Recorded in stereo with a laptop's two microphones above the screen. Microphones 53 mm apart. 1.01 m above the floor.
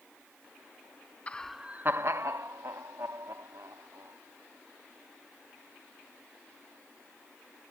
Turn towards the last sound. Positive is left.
turn(degrees=-85)